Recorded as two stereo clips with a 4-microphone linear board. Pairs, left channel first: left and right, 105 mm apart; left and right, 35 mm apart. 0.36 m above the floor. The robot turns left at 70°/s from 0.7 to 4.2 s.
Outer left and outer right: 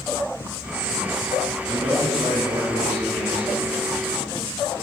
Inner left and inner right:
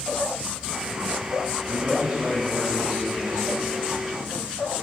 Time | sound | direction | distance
1.6 | a man speaking | 75° right | 3.5 m